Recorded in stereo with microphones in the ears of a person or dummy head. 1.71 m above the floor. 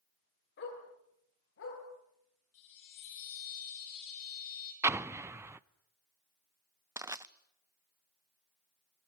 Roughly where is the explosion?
Centre.